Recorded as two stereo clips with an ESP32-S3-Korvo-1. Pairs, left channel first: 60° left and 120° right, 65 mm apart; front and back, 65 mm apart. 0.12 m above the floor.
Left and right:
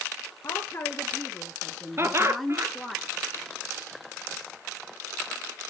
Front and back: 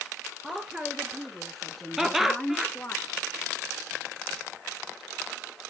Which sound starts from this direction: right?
Laughter, at 2.0 s.